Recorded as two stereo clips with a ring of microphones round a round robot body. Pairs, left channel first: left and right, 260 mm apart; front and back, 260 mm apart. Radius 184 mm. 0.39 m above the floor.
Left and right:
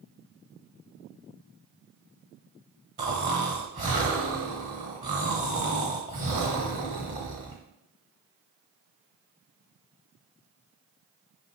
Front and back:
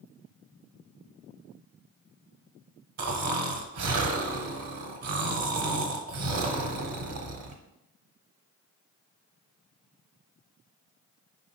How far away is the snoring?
About 0.7 m.